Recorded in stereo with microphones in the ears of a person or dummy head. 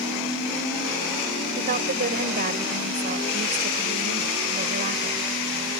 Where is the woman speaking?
50° right (ahead or behind).